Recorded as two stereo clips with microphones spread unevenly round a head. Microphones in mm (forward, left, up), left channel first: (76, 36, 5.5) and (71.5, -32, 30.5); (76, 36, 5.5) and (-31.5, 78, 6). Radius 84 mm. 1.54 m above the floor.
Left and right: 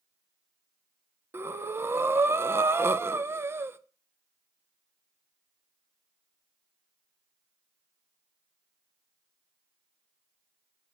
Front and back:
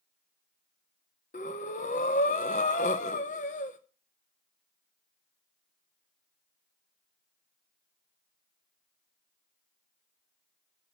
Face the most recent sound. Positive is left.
turn(degrees=-55)